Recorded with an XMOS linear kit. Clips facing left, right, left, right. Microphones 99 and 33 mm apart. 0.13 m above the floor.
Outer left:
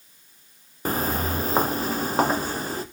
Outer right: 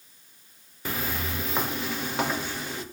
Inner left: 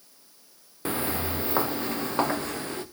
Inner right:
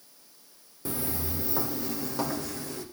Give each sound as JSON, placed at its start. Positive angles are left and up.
{"t": 0.8, "sound": "footsteps", "side_deg": 40, "distance_m": 0.8}